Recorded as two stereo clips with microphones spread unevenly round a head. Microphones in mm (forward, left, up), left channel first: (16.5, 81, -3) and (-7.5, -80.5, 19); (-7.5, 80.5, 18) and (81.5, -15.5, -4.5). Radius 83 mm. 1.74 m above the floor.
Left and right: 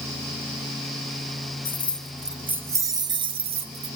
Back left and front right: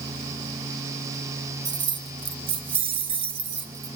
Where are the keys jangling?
Straight ahead, 1.1 m; by 4.0 s 110° right, 1.3 m.